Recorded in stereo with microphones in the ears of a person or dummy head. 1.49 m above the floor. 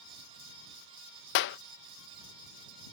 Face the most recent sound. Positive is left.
turn(degrees=60)  # may be behind; listen again after turning